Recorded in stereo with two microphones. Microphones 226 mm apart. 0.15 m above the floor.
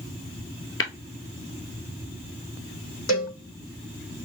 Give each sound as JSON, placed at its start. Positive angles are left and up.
{"t": 0.8, "sound": "tapping", "side_deg": 70, "distance_m": 0.8}
{"t": 3.1, "sound": "a cowbell", "side_deg": 70, "distance_m": 2.0}